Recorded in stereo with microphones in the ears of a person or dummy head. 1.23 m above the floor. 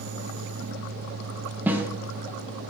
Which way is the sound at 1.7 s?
5° right (ahead or behind).